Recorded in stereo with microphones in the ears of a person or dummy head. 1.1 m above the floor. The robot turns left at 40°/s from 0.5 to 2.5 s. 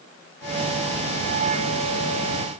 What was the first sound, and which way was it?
Only background noise.